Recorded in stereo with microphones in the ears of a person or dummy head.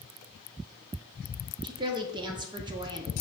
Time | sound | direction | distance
1.6 | a woman speaking | 20° right (ahead or behind) | 0.6 m